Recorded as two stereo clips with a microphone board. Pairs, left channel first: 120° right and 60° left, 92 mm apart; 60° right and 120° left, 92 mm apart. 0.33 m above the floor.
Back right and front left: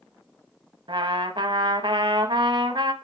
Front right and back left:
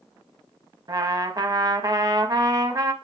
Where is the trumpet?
80° left, 0.8 m.